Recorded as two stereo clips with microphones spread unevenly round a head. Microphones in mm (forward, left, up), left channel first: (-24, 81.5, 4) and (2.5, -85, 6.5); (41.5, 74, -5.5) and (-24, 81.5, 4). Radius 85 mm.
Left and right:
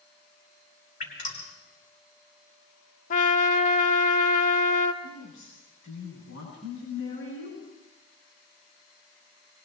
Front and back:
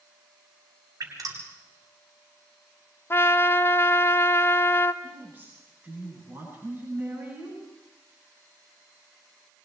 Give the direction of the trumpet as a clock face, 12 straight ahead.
10 o'clock.